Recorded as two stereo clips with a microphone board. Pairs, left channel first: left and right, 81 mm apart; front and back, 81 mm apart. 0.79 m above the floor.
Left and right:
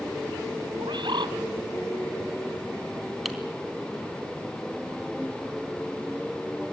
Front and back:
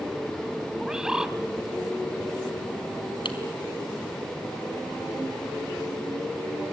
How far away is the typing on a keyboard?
About 3 m.